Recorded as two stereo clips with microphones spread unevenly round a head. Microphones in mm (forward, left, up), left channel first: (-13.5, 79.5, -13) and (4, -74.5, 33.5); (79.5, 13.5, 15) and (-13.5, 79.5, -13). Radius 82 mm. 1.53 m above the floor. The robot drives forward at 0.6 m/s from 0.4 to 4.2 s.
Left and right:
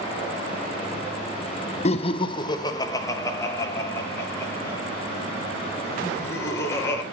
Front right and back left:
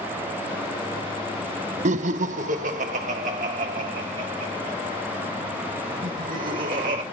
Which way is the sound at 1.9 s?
145° left.